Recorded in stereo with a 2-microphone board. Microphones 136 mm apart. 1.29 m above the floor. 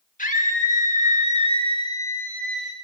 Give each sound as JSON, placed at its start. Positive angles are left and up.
{"t": 0.2, "sound": "a scream", "side_deg": 75, "distance_m": 2.0}